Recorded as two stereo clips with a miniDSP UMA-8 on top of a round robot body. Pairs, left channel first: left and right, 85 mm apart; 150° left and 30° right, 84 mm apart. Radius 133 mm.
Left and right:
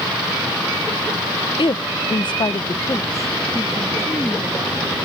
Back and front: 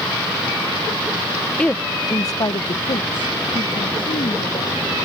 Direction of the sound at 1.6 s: 75° left.